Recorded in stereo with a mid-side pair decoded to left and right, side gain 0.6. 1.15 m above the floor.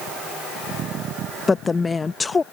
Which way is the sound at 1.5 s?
20° left.